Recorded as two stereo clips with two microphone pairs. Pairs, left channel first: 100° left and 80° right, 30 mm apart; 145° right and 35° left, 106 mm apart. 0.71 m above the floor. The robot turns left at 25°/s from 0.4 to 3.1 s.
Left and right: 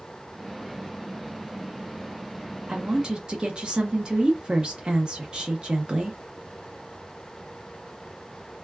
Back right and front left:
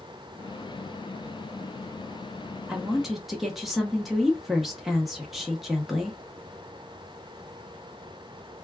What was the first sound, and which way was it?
A woman speaking, 45° right.